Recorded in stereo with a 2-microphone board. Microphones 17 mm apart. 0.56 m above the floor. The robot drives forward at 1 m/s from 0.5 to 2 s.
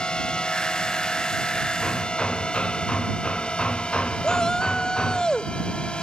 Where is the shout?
45° left (ahead or behind).